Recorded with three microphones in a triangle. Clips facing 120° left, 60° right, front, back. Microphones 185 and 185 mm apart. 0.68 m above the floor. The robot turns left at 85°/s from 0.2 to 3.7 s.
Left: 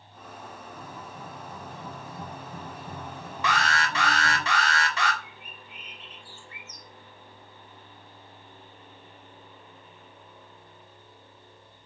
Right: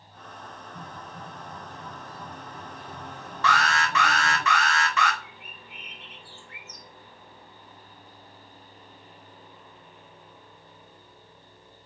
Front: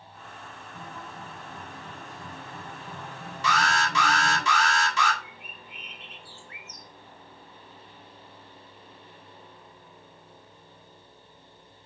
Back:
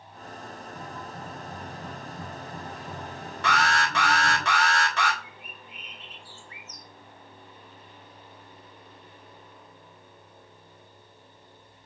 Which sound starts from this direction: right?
A guitar, at 0.8 s.